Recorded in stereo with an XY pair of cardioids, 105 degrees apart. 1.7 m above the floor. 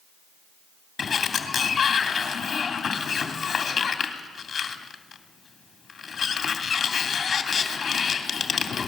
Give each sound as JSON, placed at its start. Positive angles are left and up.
{"t": 1.0, "sound": "a sliding door", "azimuth_deg": 40, "distance_m": 3.0}